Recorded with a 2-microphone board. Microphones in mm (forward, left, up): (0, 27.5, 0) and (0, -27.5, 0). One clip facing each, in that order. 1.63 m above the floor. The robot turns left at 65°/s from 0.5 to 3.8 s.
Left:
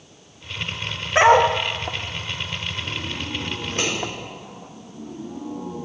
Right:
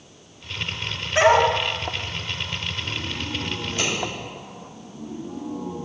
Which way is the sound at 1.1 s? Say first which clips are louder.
Left 2 dB; 25° left (ahead or behind).